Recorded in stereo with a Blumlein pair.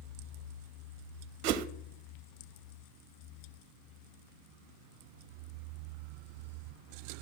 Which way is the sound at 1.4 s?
40° right.